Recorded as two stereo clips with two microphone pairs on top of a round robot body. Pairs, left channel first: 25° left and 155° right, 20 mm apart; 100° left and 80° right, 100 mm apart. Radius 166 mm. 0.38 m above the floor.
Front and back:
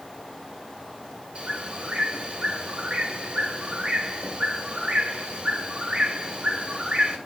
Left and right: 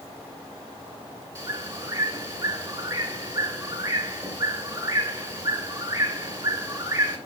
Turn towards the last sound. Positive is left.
turn(degrees=-125)